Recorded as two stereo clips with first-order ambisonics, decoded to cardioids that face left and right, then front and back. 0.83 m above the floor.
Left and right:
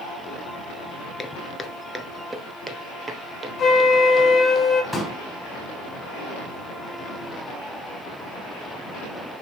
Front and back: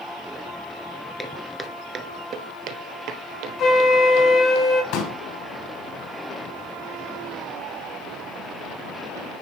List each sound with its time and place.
1.2 s footsteps: 60° left, 0.8 m; by 4.6 s 160° right, 2.5 m
3.6 s a flute: 45° left, 1.0 m
4.9 s a pop: 5° left, 3.5 m